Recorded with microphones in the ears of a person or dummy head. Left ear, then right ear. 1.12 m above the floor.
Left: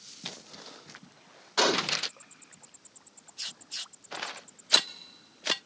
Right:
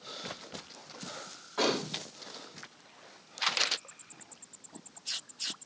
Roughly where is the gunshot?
Left.